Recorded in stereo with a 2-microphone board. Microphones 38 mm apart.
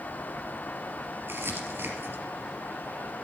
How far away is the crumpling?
About 3 m.